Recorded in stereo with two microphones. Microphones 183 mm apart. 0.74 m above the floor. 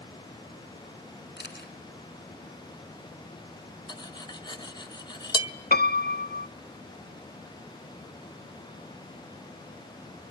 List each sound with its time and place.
1.4 s a camera shutter: 65° left (ahead or behind), 3 m
3.9 s cutlery clinking: 25° left (ahead or behind), 0.9 m
5.7 s a piano: 65° left (ahead or behind), 0.5 m